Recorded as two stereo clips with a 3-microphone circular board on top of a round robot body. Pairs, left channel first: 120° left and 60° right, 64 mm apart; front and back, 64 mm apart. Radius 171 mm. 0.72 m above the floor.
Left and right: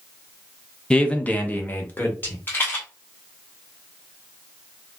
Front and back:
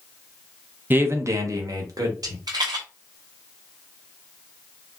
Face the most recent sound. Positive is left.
turn(degrees=180)